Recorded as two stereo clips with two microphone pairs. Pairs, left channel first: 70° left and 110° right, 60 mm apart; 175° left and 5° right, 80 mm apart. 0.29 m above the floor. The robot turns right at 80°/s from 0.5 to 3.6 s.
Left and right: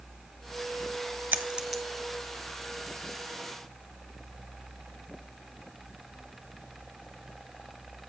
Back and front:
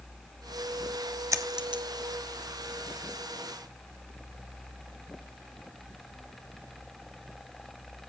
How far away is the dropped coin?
About 1.0 m.